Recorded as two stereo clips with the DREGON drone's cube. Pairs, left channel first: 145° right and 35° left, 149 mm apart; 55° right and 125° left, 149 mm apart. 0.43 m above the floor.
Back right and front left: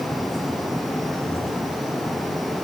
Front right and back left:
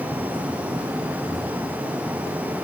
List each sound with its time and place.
Only background noise.